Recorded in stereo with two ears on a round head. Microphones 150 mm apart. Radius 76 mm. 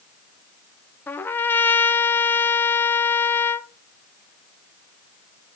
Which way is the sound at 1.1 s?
10° left (ahead or behind).